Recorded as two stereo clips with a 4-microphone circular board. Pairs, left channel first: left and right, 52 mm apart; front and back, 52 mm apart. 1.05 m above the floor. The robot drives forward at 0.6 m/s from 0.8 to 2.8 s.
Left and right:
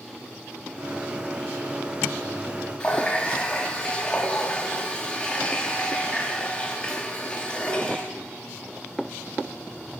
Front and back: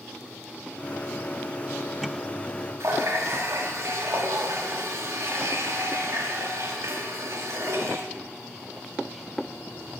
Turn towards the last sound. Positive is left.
turn(degrees=160)